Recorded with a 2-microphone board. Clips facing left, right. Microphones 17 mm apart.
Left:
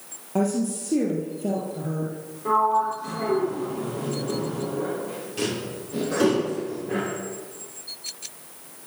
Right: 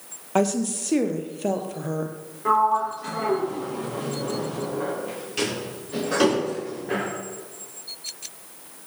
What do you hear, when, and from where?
0.3 s a woman speaking: 40° right (ahead or behind), 3 m
2.5 s a sliding door: 30° right (ahead or behind), 8 m